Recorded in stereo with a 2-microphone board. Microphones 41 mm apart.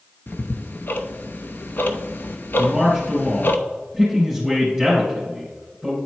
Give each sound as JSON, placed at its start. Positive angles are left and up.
{"t": 0.3, "sound": "ticking", "side_deg": 55, "distance_m": 0.5}
{"t": 2.6, "sound": "a man speaking", "side_deg": 10, "distance_m": 2.5}